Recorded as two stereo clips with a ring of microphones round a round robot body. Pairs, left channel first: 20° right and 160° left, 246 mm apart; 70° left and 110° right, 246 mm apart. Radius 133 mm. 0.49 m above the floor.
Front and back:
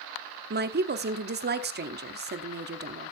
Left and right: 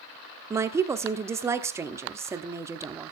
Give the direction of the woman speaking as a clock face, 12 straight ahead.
6 o'clock.